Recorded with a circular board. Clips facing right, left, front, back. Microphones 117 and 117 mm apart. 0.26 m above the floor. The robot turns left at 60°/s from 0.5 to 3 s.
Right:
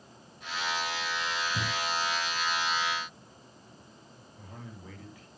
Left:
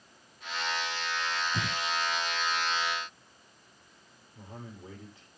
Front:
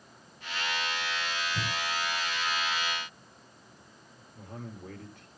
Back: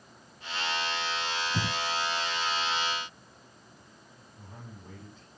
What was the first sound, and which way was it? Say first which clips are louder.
Breathing: even, back 2 dB; 155° left.